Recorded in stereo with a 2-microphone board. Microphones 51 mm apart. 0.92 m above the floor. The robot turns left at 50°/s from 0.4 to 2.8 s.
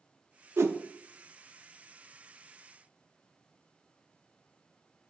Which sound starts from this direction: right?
A whoosh, at 0.6 s.